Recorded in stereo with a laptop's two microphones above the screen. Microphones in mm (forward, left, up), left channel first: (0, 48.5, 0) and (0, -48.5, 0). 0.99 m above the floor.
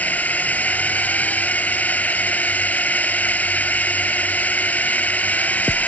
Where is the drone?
15° left (ahead or behind).